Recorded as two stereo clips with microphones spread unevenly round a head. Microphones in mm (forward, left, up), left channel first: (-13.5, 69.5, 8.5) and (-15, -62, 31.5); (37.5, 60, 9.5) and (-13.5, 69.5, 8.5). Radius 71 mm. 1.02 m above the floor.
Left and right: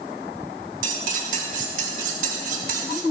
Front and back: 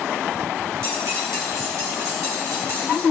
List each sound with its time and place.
0.8 s cutlery clinking: 120° right, 1.4 m